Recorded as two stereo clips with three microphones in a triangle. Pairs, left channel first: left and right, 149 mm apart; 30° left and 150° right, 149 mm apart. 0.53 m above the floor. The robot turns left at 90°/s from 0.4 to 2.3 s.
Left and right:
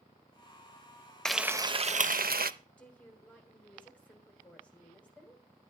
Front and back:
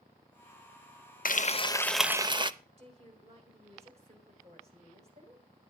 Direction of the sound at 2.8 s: 170° left.